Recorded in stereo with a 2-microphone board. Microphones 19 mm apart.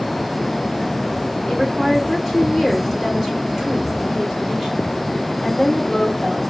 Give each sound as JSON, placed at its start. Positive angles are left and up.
{"t": 1.5, "sound": "a woman speaking", "side_deg": -10, "distance_m": 2.5}